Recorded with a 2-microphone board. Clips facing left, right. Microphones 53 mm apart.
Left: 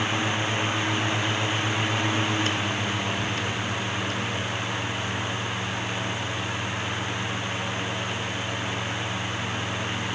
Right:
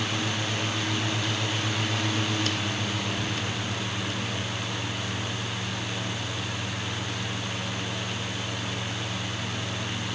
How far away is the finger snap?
No finger snap in this recording.